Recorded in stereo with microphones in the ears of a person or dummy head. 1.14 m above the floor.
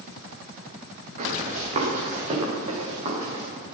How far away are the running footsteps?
About 5.5 m.